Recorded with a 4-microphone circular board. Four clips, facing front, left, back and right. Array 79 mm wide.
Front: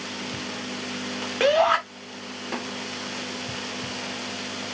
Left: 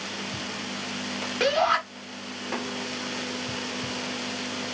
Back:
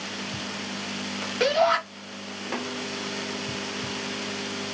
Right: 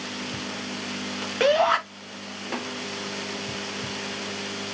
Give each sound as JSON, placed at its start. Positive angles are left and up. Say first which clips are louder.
{"t": 1.4, "sound": "a shout", "louder": "right 3 dB, front 2 dB", "azimuth_deg": -35, "distance_m": 1.0}